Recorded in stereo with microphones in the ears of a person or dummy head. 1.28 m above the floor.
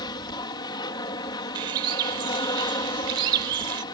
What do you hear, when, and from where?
0.0 s an aircraft: 25° left (ahead or behind)
1.6 s a bird: 25° right (ahead or behind)